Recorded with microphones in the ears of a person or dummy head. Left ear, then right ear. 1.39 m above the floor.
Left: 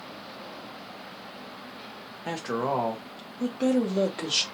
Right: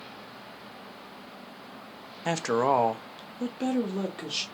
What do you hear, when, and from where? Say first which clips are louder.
2.2 s a woman speaking: right 4 dB; 70° right (ahead or behind), 0.6 m; by 4.4 s 10° left (ahead or behind), 1.0 m